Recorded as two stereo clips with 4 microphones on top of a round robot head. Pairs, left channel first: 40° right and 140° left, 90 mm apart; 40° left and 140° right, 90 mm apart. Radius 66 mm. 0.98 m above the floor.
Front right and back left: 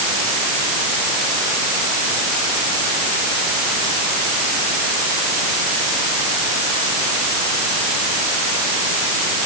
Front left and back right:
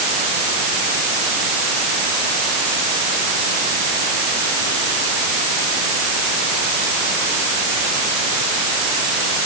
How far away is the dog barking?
I don't hear a dog barking.